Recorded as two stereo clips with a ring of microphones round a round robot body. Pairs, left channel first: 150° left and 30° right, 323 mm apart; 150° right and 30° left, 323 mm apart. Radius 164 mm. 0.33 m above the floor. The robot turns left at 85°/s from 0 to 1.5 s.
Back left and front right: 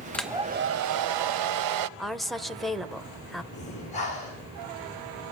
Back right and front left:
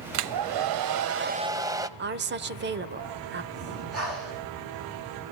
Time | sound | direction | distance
0.1 | a hair dryer | 65° left | 0.8 m
2.0 | a woman speaking | 60° left | 1.0 m
3.5 | breathing | 80° left | 6.5 m